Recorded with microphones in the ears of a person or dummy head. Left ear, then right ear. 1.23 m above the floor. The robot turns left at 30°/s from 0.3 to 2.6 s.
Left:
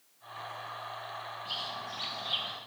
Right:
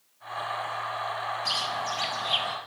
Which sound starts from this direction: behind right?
A bird, at 1.4 s.